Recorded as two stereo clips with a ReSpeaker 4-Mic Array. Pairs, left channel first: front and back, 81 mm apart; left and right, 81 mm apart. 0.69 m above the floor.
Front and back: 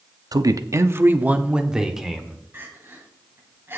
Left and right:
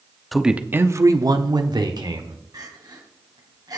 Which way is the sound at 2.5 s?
120° right.